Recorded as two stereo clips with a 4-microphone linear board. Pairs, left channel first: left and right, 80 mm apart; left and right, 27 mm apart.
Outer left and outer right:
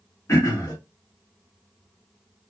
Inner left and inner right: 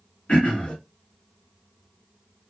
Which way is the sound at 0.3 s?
40° left (ahead or behind).